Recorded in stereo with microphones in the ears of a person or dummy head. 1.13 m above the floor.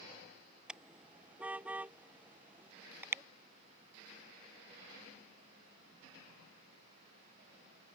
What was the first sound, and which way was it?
A car horn, 5° right (ahead or behind).